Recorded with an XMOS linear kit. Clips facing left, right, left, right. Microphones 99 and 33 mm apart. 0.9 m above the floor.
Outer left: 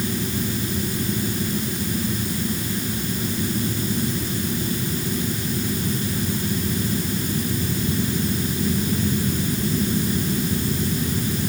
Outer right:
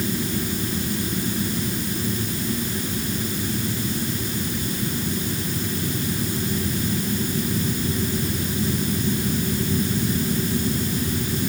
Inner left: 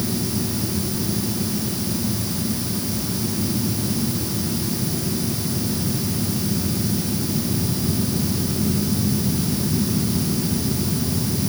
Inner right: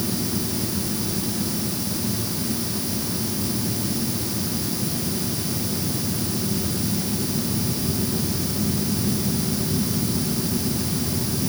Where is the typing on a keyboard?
No typing on a keyboard in this recording.